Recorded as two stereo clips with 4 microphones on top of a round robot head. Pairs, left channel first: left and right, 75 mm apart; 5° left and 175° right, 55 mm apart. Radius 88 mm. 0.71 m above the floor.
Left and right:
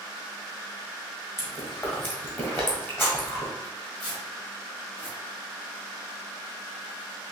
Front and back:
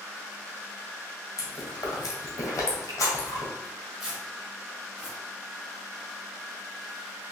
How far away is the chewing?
About 1.6 m.